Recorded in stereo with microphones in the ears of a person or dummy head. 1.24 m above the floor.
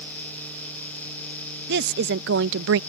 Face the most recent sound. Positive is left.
turn(degrees=-75)  # may be behind; listen again after turning